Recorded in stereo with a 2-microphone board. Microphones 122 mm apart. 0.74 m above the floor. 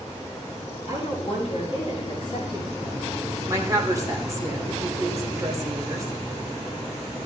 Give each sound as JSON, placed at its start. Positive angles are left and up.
{"t": 0.9, "sound": "a woman speaking", "side_deg": 65, "distance_m": 6.5}
{"t": 3.5, "sound": "a woman speaking", "side_deg": -25, "distance_m": 2.0}